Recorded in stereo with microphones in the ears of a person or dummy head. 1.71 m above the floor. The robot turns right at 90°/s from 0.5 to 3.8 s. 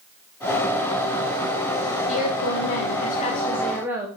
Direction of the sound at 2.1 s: 45° left.